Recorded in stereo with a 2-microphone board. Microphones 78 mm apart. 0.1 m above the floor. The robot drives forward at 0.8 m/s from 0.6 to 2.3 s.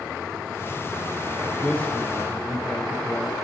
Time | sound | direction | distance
1.6 | a man speaking | 20° left (ahead or behind) | 2 m